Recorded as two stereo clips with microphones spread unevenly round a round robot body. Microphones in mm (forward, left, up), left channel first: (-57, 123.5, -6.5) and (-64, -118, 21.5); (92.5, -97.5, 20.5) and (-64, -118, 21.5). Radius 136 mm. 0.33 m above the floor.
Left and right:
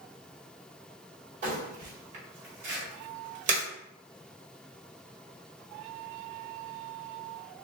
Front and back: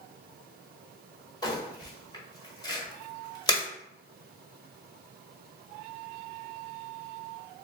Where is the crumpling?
40° right, 1.4 m.